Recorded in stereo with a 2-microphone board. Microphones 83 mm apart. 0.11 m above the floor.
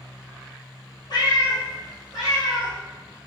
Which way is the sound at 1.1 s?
55° left (ahead or behind).